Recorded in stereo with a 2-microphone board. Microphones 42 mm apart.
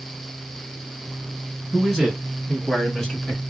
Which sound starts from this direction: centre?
A man speaking, at 1.7 s.